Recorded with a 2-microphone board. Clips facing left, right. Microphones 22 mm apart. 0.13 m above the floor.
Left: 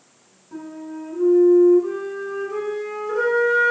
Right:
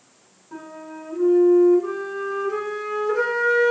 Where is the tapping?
No tapping in this recording.